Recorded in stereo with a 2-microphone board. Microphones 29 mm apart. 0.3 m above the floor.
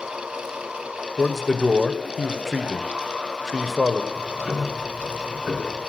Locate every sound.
1.2 s a man speaking: 5° right (ahead or behind), 1.0 m
4.1 s ticking: 70° right (ahead or behind), 3.5 m